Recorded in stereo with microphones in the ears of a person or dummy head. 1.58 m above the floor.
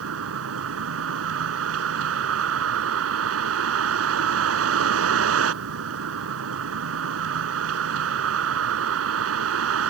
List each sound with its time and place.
0.0 s a vehicle: 85° right